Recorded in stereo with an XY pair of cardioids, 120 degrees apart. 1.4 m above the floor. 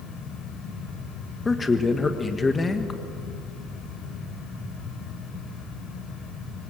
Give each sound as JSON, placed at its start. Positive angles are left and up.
{"t": 0.0, "sound": "a fan", "azimuth_deg": 55, "distance_m": 5.0}
{"t": 1.4, "sound": "a man speaking", "azimuth_deg": 25, "distance_m": 1.6}